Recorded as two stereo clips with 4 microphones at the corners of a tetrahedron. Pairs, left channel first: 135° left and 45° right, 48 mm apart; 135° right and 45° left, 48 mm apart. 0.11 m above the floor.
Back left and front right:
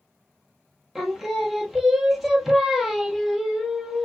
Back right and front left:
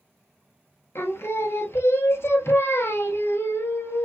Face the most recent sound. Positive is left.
turn(degrees=-135)